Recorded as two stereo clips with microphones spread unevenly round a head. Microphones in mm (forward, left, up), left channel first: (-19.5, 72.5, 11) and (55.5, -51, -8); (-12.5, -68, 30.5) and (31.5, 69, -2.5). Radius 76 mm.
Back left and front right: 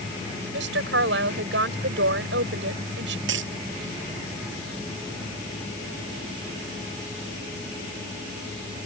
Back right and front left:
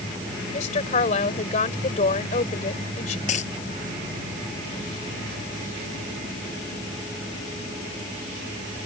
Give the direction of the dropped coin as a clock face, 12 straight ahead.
2 o'clock.